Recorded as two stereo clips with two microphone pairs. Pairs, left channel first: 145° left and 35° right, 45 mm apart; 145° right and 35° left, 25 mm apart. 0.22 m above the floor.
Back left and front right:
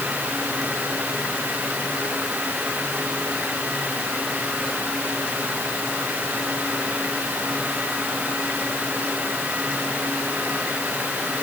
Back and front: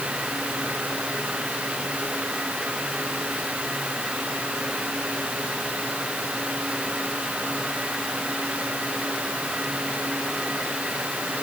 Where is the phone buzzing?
No phone buzzing in this recording.